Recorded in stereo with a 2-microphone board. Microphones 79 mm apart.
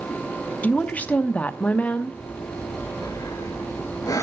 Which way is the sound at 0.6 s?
20° left (ahead or behind).